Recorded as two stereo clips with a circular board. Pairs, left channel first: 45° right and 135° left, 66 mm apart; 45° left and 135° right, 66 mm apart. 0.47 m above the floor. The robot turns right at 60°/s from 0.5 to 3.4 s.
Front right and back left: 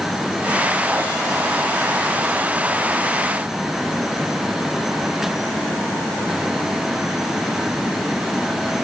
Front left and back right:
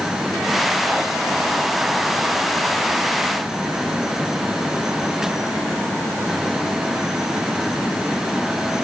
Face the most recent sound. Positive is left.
No sound to turn to.